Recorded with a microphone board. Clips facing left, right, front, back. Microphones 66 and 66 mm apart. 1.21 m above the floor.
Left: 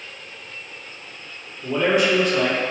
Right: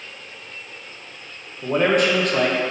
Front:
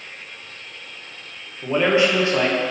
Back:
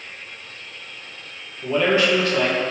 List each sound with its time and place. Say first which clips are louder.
1.6 s a man speaking: right 1 dB, front 1 dB; 65° right, 1.3 m